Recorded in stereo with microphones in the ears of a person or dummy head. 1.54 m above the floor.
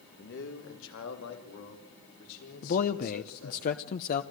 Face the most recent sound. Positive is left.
turn(degrees=45)  # may be behind; listen again after turning